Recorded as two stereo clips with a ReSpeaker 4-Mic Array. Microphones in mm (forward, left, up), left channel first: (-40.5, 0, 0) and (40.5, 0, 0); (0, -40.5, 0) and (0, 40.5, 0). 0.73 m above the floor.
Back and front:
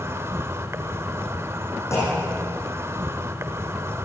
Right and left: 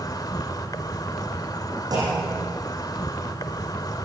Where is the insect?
55° right, 1.7 m.